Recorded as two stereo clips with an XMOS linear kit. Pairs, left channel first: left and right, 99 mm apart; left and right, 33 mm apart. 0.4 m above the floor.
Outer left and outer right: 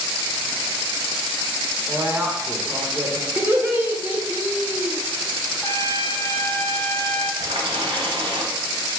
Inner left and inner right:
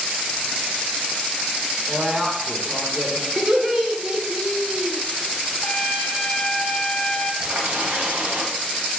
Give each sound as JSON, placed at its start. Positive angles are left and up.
{"t": 1.9, "sound": "a woman speaking", "side_deg": -20, "distance_m": 0.8}
{"t": 3.4, "sound": "laughter", "side_deg": -20, "distance_m": 0.9}
{"t": 5.6, "sound": "a trumpet", "side_deg": 25, "distance_m": 0.6}
{"t": 7.4, "sound": "a running tap", "side_deg": -65, "distance_m": 1.3}